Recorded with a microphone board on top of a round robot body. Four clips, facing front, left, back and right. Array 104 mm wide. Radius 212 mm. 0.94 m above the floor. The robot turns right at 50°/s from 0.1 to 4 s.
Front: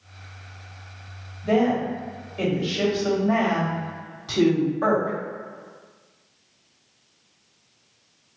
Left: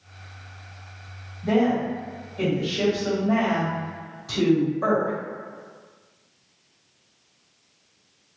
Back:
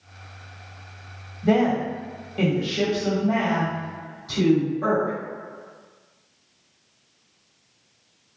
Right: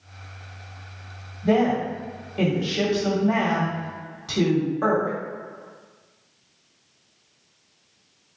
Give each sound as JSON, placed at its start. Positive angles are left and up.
{"t": 1.4, "sound": "a woman speaking", "azimuth_deg": 175, "distance_m": 1.8}